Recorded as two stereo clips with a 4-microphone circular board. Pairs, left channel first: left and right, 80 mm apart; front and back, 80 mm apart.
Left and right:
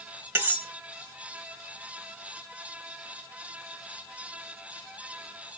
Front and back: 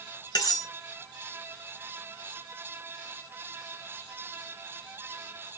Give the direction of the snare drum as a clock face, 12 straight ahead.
I don't hear a snare drum.